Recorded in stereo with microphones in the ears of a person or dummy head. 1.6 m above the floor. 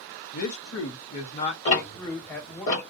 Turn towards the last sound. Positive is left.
turn(degrees=30)  # may be behind; listen again after turning